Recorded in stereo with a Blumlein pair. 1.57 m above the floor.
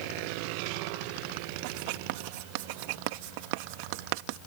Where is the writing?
45° right.